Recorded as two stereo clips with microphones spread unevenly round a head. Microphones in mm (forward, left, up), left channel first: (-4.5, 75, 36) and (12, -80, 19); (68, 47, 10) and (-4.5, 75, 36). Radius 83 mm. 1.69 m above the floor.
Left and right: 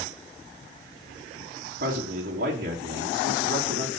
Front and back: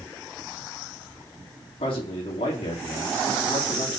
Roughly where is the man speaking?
Ahead right.